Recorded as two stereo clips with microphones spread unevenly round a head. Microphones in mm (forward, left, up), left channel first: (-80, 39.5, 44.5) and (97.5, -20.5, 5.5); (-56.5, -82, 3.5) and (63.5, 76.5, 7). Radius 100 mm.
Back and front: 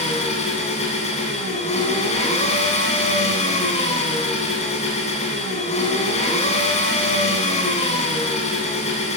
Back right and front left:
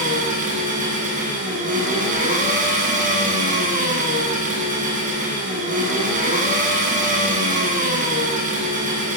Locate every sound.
0.0 s an engine running: 105° left, 9 m